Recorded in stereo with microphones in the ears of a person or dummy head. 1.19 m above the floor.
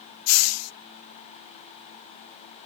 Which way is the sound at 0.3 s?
80° left.